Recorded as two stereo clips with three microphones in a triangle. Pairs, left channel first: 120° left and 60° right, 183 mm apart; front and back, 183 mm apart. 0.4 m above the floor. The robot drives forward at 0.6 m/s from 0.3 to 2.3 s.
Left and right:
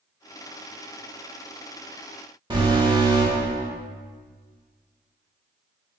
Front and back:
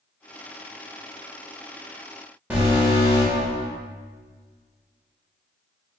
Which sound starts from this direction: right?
An alarm, at 2.5 s.